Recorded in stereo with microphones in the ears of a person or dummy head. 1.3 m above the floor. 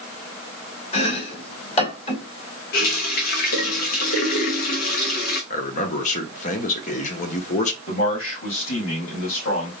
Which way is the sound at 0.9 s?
35° left (ahead or behind).